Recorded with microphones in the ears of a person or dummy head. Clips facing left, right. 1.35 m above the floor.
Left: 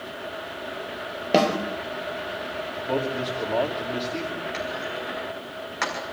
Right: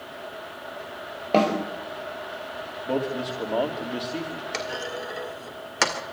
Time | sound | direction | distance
1.3 | a snare drum | 15° left (ahead or behind) | 3.5 m
2.9 | a man speaking | 5° right (ahead or behind) | 2.5 m
4.5 | a clunk | 50° right (ahead or behind) | 2.0 m